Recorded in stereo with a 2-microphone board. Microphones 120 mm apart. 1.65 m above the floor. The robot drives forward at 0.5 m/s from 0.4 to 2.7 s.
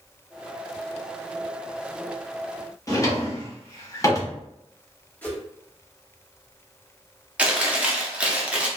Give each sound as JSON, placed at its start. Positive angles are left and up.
{"t": 2.9, "sound": "a drawer", "side_deg": 30, "distance_m": 0.9}
{"t": 5.2, "sound": "a whoosh", "side_deg": 15, "distance_m": 1.4}
{"t": 7.4, "sound": "chewing", "side_deg": -10, "distance_m": 0.7}